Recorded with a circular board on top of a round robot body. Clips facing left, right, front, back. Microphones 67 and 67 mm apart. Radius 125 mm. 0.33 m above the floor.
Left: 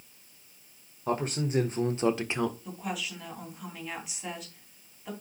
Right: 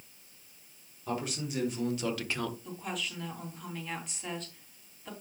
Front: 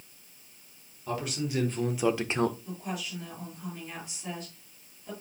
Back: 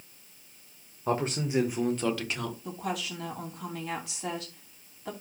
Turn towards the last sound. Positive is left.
turn(degrees=175)